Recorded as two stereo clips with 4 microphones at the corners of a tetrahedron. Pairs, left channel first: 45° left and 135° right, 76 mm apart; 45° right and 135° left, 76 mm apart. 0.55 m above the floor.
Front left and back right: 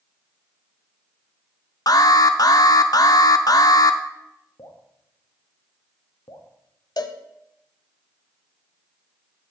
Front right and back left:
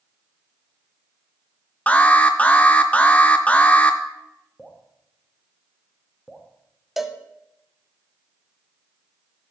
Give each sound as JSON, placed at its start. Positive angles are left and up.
{"t": 1.9, "sound": "an alarm", "azimuth_deg": 25, "distance_m": 0.5}
{"t": 4.6, "sound": "dripping", "azimuth_deg": 40, "distance_m": 0.8}
{"t": 7.0, "sound": "a cowbell", "azimuth_deg": 50, "distance_m": 0.6}